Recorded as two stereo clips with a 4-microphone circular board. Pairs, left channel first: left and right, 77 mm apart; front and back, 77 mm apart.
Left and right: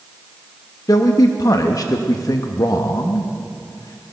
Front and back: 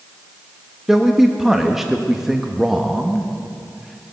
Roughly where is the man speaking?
Left.